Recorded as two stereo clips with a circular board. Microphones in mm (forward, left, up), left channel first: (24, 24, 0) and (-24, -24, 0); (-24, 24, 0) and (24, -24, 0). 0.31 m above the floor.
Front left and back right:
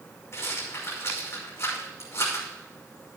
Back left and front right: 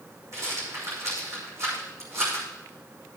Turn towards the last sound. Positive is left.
turn(degrees=-5)